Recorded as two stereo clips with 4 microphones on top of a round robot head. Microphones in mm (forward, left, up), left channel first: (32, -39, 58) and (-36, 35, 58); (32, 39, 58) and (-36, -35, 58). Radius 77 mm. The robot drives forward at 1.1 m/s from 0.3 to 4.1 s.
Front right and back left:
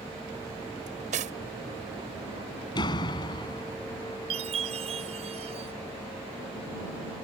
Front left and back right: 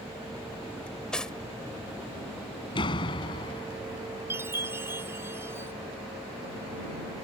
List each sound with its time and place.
0.9 s cutlery clinking: 125° left; by 1.4 s 130° left
2.8 s a door slam: straight ahead; by 3.7 s 5° left
4.3 s a chime: 160° left